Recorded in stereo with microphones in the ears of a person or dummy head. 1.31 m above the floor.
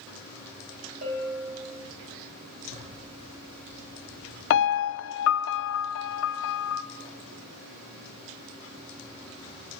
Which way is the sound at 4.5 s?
70° left (ahead or behind).